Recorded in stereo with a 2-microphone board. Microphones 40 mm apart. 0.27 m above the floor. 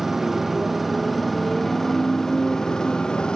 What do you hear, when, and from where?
0.0 s a motorcycle: 10° right (ahead or behind); by 3.4 s 20° left (ahead or behind)